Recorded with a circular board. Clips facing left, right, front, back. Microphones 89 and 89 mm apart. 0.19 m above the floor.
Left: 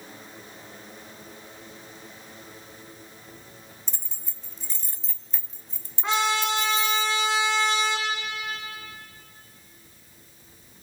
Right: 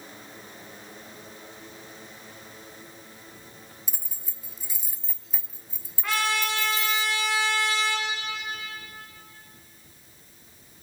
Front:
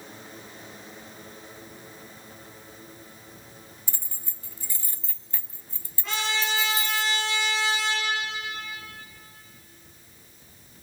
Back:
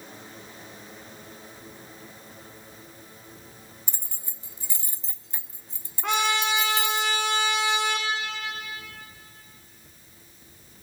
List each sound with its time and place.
3.9 s keys jangling: 160° right, 0.7 m
6.0 s a trumpet: 160° left, 4.5 m